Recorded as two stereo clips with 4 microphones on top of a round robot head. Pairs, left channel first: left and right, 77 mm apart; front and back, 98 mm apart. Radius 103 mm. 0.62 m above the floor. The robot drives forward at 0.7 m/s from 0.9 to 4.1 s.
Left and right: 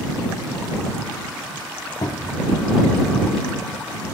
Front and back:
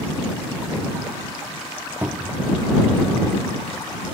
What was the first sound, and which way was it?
A cupboard door, 110° left.